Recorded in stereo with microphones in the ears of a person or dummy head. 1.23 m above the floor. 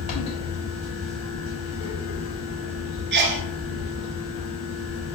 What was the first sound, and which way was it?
A fan, 30° left (ahead or behind).